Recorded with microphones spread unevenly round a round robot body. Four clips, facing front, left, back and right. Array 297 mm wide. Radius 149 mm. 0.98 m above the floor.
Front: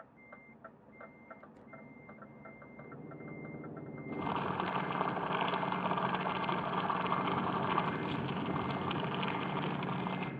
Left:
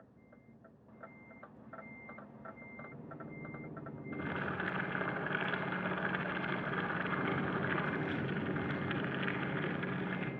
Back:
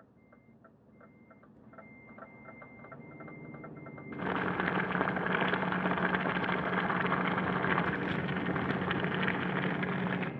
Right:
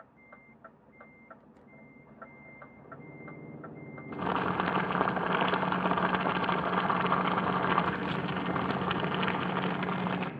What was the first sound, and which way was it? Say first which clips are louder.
Boiling: right 9 dB, back 2 dB; 115° right.